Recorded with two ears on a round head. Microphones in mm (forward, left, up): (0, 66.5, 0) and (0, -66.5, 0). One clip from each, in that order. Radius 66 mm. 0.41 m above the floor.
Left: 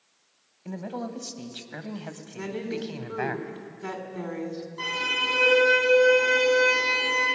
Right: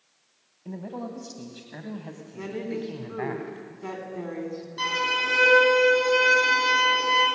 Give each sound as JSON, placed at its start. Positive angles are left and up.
{"t": 0.7, "sound": "a man speaking", "side_deg": 40, "distance_m": 2.0}
{"t": 2.4, "sound": "a woman speaking", "side_deg": 15, "distance_m": 3.0}
{"t": 4.8, "sound": "a violin", "side_deg": -70, "distance_m": 8.0}